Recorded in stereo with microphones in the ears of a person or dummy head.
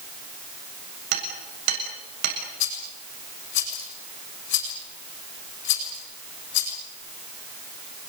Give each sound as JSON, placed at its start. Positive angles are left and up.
{"t": 1.1, "sound": "hammering", "side_deg": -75, "distance_m": 7.0}
{"t": 2.6, "sound": "a rattle", "side_deg": 60, "distance_m": 6.0}